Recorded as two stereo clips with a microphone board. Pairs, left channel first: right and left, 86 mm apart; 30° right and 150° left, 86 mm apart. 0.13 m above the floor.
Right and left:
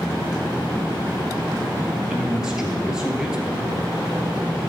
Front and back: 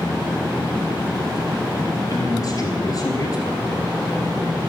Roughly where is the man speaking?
Ahead.